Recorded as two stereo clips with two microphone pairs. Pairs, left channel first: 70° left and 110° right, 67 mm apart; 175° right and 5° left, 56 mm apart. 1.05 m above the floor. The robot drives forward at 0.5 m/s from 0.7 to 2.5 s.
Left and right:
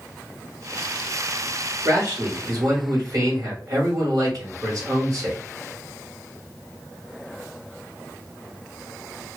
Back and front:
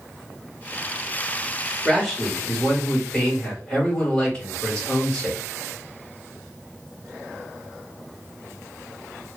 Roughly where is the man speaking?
Right.